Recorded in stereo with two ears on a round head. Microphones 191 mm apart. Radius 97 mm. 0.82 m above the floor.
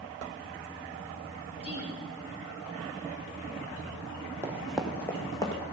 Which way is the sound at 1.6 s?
30° left (ahead or behind).